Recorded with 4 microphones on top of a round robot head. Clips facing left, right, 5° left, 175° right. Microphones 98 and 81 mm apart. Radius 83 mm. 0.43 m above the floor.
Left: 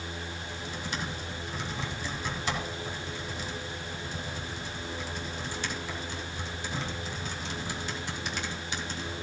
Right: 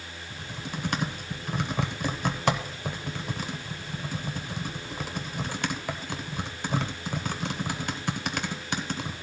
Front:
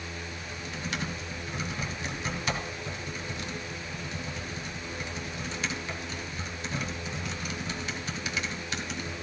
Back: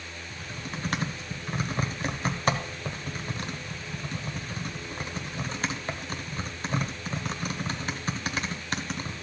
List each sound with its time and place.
0.3 s typing on a keyboard: 125° right, 1.0 m